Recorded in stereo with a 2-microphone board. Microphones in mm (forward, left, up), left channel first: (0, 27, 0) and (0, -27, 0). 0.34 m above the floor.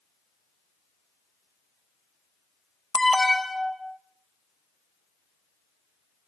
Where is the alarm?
5° left (ahead or behind), 1.1 m.